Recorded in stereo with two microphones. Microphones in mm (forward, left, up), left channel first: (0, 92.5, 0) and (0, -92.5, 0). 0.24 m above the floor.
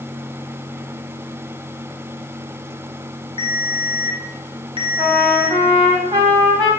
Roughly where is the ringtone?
Right.